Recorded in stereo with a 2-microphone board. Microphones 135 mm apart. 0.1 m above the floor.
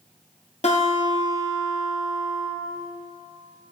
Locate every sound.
0.6 s a guitar: 60° left (ahead or behind), 1.3 m